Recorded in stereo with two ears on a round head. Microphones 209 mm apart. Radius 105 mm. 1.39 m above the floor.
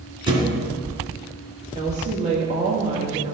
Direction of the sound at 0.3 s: 25° right (ahead or behind).